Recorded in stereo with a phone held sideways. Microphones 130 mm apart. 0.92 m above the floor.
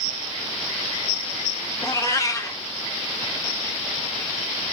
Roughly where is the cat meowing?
Left.